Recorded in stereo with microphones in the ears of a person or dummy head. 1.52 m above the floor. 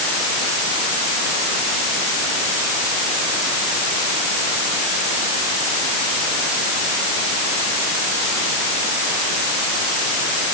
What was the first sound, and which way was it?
Only background noise.